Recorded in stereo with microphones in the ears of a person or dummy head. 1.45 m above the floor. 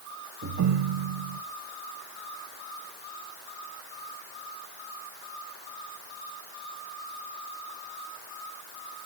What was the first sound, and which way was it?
A ringtone, 60° right (ahead or behind).